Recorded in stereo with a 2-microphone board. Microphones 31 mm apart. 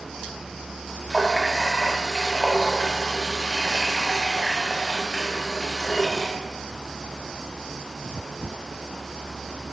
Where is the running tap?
5° left (ahead or behind), 0.7 m.